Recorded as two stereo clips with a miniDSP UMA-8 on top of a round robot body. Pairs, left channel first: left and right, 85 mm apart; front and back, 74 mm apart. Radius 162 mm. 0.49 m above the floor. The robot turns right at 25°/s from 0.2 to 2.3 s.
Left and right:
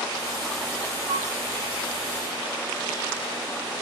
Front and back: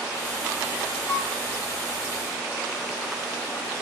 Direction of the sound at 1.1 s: 70° right.